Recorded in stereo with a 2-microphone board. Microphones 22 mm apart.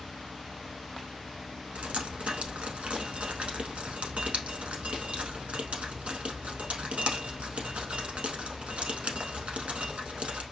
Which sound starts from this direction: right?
Dripping, at 1.8 s.